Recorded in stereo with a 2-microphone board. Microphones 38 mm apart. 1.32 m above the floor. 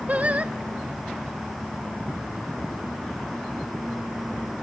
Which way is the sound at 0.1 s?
40° right (ahead or behind).